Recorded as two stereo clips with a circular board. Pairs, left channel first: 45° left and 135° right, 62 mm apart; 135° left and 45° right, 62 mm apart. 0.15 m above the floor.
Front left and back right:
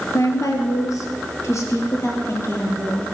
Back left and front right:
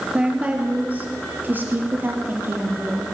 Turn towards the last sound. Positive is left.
turn(degrees=5)